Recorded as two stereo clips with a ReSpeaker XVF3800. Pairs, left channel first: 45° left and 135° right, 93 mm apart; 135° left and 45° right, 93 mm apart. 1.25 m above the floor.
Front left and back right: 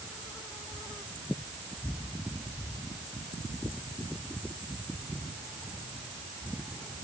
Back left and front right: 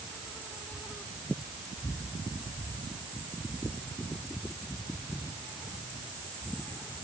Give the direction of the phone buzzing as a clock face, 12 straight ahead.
I don't hear a phone buzzing.